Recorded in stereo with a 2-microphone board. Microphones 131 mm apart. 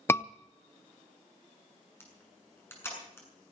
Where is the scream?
20° left (ahead or behind), 0.5 m.